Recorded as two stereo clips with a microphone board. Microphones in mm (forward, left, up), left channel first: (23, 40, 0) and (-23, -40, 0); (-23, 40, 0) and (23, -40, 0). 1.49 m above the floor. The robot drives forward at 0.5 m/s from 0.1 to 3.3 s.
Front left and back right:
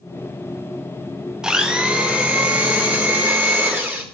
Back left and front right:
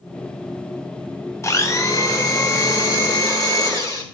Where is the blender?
160° left, 0.9 m; by 4.0 s 170° left, 1.7 m.